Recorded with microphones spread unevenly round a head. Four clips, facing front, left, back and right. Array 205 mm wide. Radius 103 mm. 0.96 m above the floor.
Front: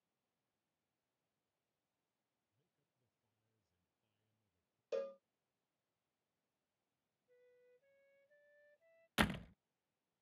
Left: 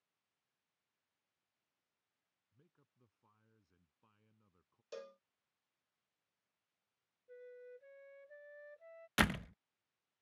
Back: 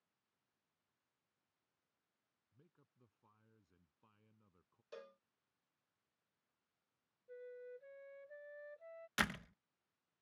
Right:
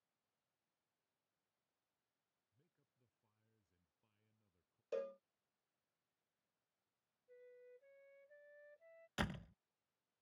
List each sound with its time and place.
2.5 s a man speaking: 145° left
4.9 s a cowbell: 30° right
7.3 s a flute: 150° left
9.2 s a door slam: 80° left